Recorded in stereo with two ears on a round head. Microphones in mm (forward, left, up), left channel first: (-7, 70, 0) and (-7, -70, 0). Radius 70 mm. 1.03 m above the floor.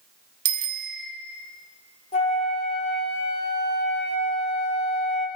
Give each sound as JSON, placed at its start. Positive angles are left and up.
{"t": 0.5, "sound": "a bicycle bell", "side_deg": -45, "distance_m": 2.5}
{"t": 2.1, "sound": "a flute", "side_deg": 40, "distance_m": 3.5}